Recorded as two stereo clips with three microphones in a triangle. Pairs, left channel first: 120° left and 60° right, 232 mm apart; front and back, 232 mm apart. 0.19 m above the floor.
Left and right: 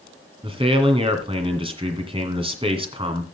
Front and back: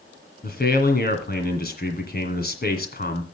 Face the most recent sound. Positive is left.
turn(degrees=-5)